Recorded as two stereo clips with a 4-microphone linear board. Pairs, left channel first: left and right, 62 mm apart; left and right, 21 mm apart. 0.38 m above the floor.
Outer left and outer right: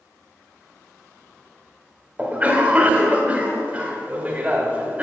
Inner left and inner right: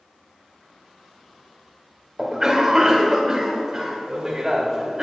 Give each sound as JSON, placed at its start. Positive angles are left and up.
{"t": 2.2, "sound": "a cough", "side_deg": -25, "distance_m": 1.5}